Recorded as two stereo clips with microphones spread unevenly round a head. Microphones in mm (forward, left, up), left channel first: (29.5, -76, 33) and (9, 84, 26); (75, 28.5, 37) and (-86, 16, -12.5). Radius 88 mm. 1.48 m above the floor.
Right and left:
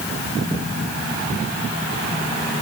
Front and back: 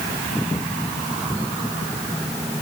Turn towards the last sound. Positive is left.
No sound to turn to.